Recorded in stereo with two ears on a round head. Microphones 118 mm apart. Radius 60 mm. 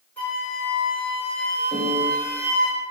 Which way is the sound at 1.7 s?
35° left (ahead or behind).